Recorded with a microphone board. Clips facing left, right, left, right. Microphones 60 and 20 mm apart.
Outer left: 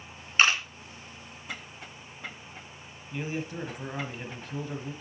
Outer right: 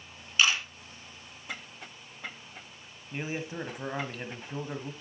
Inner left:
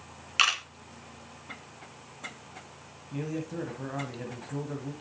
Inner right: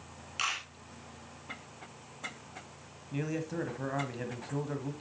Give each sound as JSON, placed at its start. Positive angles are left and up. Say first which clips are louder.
{"t": 0.4, "sound": "a camera shutter", "louder": "outer left 3 dB, inner left 9 dB", "side_deg": 45, "distance_m": 2.0}
{"t": 3.1, "sound": "a man speaking", "louder": "outer left 1 dB, even", "side_deg": -25, "distance_m": 1.4}